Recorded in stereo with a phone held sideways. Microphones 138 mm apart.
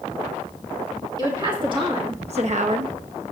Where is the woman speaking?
30° right (ahead or behind), 2 m; by 3.0 s 55° right (ahead or behind), 0.8 m.